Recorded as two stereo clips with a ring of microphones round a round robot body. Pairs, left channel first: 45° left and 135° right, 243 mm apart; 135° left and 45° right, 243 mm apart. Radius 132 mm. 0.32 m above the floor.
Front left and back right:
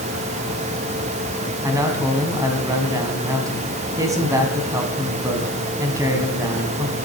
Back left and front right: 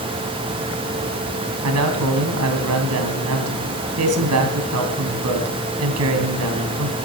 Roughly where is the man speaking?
Ahead right.